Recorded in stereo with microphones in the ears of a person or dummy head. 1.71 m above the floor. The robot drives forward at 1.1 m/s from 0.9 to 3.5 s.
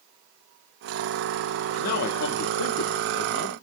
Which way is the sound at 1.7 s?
50° left (ahead or behind).